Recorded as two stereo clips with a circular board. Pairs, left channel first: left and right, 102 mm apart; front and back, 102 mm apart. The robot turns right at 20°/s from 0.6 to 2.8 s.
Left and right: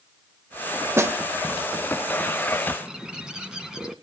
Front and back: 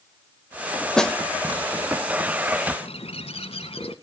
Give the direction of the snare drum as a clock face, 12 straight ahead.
3 o'clock.